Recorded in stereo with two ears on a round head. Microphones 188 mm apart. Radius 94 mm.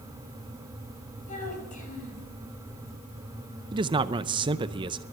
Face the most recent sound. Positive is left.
turn(degrees=-25)  # may be behind; listen again after turning